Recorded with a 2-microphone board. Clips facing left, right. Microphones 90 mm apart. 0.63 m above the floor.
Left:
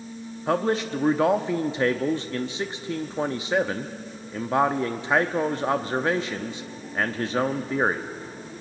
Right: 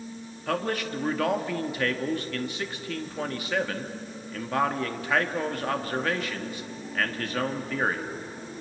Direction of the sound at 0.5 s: 25° left (ahead or behind).